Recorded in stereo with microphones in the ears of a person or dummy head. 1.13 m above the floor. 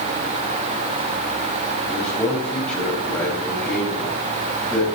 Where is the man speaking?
5° left (ahead or behind), 6 m.